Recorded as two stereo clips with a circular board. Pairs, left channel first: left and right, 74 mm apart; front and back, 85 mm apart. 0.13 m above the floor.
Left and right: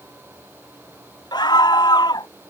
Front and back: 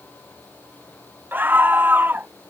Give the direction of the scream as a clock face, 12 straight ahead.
8 o'clock.